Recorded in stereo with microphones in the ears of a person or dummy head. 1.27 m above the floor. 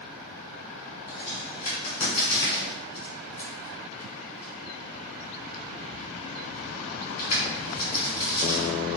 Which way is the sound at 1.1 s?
35° left (ahead or behind).